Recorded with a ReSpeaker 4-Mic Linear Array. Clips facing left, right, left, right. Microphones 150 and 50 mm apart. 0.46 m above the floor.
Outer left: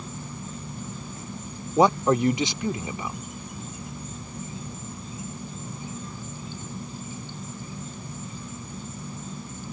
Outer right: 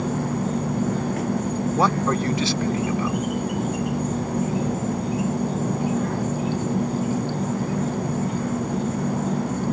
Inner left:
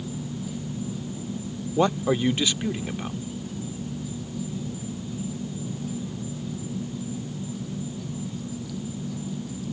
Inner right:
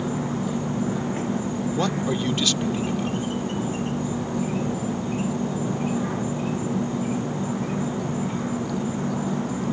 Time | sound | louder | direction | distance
0.0 | an insect | outer right 14 dB, inner right 8 dB | 70° right (ahead or behind) | ?
1.8 | a man speaking | outer left 4 dB, inner left 5 dB | 20° left (ahead or behind) | ?